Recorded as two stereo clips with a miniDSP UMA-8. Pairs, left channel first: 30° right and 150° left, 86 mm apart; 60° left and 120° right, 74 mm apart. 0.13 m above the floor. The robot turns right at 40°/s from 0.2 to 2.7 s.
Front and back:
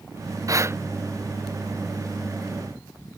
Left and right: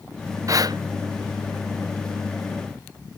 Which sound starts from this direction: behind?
Breathing, at 0.5 s.